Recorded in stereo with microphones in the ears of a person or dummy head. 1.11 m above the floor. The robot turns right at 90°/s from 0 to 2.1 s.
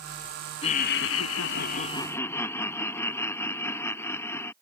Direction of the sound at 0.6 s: 30° left.